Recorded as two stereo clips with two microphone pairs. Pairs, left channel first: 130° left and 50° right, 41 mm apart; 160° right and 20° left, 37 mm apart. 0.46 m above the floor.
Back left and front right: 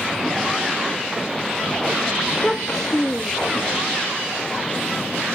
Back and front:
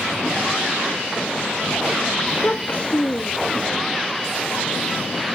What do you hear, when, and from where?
2.3 s a child speaking: 160° right